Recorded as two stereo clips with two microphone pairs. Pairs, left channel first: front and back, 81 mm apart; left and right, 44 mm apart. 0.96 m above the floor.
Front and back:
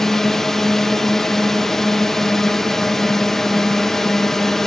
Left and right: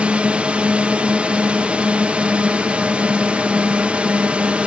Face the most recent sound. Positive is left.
turn(degrees=-75)